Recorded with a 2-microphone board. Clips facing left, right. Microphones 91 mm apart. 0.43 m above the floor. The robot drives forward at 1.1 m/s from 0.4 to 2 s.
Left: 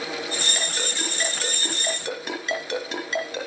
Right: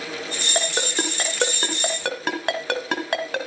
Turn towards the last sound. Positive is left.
turn(degrees=-80)